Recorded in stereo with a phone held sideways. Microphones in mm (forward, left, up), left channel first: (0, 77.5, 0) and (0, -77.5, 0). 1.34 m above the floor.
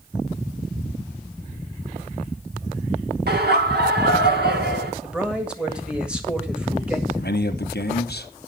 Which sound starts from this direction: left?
A man speaking, at 7.1 s.